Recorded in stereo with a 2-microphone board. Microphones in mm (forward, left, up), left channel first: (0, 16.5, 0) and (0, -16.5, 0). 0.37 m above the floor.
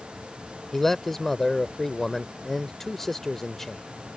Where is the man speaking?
10° left (ahead or behind).